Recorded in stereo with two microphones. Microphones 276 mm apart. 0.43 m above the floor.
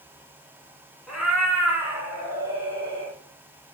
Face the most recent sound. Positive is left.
turn(degrees=-15)  # may be behind; listen again after turning